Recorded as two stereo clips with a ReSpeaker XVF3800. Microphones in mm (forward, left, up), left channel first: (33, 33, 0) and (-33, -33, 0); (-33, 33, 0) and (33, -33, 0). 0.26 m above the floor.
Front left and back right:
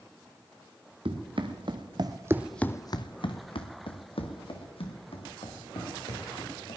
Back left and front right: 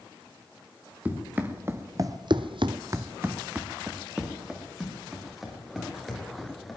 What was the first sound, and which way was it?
Running footsteps, 115° right.